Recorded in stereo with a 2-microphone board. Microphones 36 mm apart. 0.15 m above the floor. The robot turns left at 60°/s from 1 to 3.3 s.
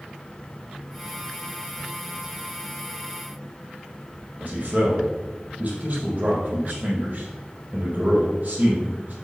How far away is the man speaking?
About 4.5 m.